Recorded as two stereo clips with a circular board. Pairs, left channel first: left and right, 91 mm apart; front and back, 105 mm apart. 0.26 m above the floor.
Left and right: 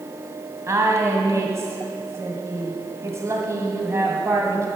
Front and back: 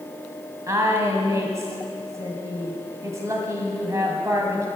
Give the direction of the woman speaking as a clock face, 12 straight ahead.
4 o'clock.